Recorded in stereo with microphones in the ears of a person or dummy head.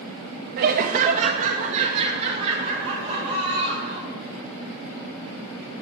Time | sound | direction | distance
0.6 | laughter | 55° right (ahead or behind) | 0.5 m